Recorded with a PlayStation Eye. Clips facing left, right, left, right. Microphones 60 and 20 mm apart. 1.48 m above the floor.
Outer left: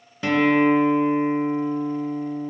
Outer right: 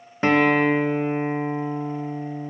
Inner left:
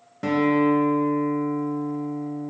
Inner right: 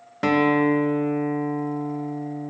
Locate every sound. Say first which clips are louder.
0.2 s a guitar: even, inner right 1 dB; 40° right (ahead or behind), 0.7 m